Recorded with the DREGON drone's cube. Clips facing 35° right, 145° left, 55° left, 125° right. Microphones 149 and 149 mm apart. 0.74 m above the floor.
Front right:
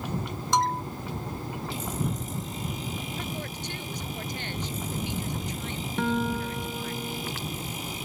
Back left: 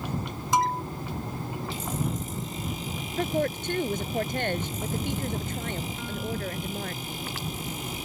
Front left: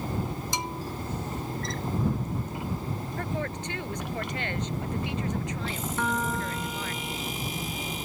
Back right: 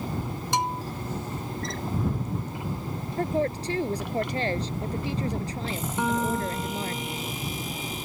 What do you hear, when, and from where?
0.5 s a bell: 130° right
3.2 s a woman speaking: straight behind
6.0 s a guitar: 50° right